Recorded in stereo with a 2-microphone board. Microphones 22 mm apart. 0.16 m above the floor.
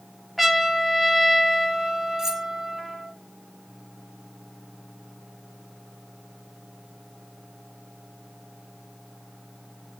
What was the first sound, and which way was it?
A trumpet, centre (ahead or behind).